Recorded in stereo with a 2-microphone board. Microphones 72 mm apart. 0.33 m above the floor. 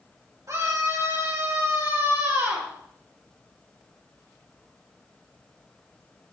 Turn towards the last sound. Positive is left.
turn(degrees=-40)  # may be behind; listen again after turning